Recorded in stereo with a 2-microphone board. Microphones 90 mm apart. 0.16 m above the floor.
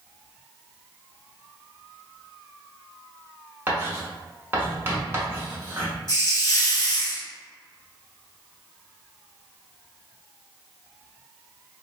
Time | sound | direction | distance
3.7 | writing | 25° right (ahead or behind) | 1.0 m
6.1 | a hiss | 45° left (ahead or behind) | 1.1 m